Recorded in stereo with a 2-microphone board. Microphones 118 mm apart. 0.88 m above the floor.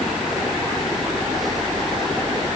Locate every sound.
Only background noise.